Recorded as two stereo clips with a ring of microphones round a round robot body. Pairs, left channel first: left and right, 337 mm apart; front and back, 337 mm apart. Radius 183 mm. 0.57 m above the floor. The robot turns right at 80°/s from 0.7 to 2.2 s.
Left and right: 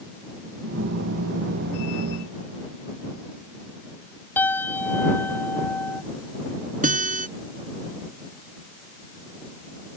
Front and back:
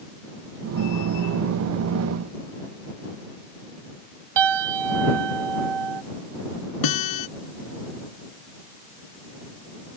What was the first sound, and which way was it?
A piano, 175° left.